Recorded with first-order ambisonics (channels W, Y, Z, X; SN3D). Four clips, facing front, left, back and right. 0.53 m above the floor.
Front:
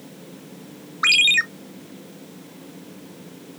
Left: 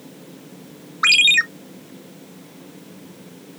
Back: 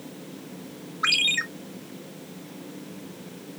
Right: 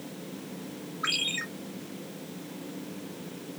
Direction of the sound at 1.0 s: 60° left.